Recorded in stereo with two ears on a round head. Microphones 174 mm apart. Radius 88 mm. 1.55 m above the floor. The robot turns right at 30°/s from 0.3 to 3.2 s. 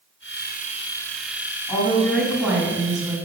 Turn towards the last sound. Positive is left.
turn(degrees=-155)